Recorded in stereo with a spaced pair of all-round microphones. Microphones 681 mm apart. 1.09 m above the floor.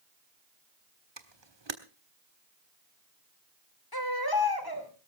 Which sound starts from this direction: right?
A camera shutter, at 1.2 s.